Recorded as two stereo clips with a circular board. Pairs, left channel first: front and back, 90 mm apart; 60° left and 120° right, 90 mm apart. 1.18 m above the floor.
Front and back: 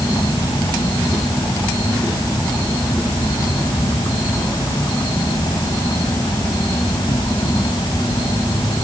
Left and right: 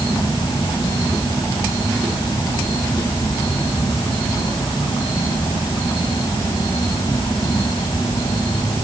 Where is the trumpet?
No trumpet in this recording.